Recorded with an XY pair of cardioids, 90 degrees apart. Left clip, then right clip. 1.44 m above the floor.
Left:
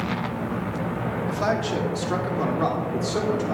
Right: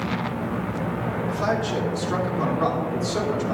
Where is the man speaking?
35° left, 2.5 m; by 3.5 s 10° left, 3.5 m.